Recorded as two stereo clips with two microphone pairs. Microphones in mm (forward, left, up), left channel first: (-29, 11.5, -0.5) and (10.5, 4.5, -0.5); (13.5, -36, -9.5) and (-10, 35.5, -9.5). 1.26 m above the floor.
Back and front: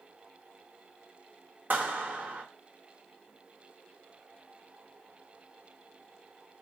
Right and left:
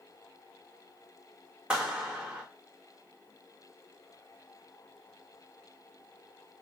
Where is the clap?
30° left, 1.2 m.